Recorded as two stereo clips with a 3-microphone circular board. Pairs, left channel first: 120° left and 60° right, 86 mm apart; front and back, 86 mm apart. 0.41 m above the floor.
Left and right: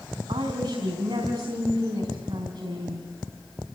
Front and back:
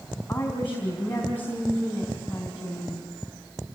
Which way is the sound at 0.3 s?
65° right.